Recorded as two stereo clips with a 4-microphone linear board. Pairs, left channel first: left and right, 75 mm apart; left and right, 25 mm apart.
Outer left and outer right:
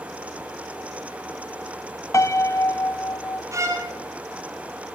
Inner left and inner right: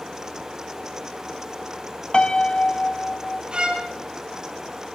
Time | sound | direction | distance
2.1 | a piano | 40° left (ahead or behind) | 0.6 m
3.5 | a violin | 40° right (ahead or behind) | 2 m